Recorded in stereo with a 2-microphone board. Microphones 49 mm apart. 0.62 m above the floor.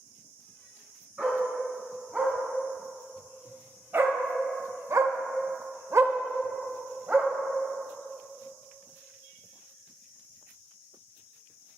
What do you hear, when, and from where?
1.2 s a dog barking: 25° right (ahead or behind), 2.5 m